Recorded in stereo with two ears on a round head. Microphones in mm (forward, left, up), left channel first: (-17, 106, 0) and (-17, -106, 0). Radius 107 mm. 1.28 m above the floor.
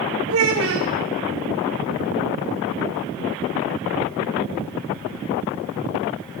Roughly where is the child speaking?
Right.